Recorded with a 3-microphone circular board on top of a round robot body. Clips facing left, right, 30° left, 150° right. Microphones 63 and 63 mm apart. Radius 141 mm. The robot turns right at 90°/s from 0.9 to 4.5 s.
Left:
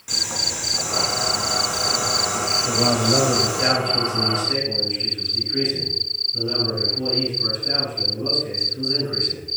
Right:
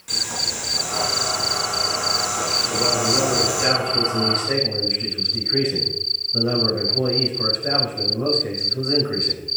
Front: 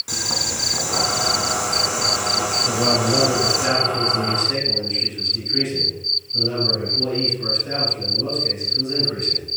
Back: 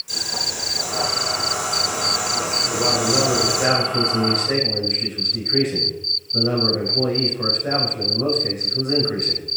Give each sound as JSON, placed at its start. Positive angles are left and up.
{"t": 0.1, "sound": "boiling", "azimuth_deg": 5, "distance_m": 3.5}
{"t": 2.7, "sound": "a man speaking", "azimuth_deg": 75, "distance_m": 4.0}